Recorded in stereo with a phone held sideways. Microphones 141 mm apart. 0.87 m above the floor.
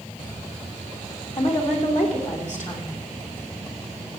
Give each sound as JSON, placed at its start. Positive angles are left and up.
{"t": 1.4, "sound": "a woman speaking", "side_deg": 60, "distance_m": 3.0}